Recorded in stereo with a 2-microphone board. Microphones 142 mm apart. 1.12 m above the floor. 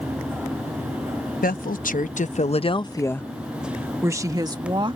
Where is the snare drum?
No snare drum in this recording.